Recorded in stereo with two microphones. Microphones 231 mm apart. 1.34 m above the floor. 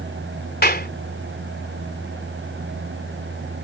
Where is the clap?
45° left (ahead or behind).